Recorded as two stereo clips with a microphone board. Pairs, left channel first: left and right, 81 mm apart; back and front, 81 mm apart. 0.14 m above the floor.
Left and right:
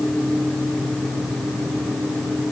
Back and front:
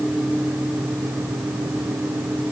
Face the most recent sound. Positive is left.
No sound to turn to.